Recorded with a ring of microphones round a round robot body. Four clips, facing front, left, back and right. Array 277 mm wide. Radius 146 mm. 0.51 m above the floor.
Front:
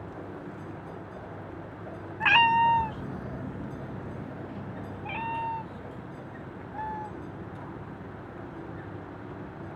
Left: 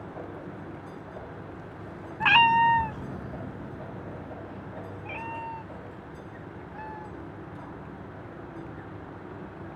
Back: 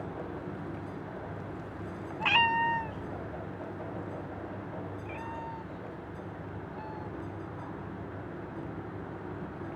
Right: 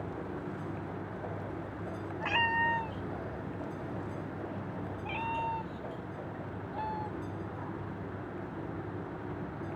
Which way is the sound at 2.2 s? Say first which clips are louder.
Left 11 dB, front 6 dB; 75° left.